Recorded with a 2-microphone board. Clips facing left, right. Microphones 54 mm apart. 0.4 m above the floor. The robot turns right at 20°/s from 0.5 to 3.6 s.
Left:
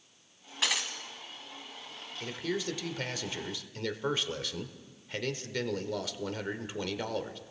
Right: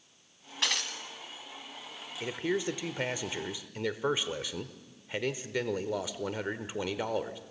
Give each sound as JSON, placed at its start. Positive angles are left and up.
{"t": 0.6, "sound": "breaking glass", "side_deg": 5, "distance_m": 1.8}
{"t": 2.2, "sound": "a man speaking", "side_deg": -25, "distance_m": 1.4}